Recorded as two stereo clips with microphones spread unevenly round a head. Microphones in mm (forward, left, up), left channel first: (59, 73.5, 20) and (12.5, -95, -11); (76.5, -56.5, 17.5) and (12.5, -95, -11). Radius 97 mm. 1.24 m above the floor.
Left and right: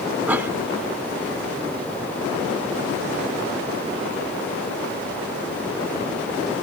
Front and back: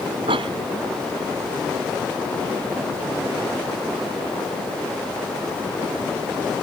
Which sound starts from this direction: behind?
A cough, at 0.3 s.